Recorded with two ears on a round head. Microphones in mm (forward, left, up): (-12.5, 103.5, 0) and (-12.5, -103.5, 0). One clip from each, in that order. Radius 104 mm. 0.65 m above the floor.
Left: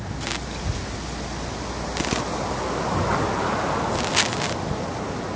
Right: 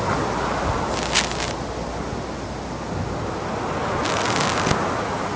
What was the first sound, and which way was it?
A child speaking, 55° left (ahead or behind).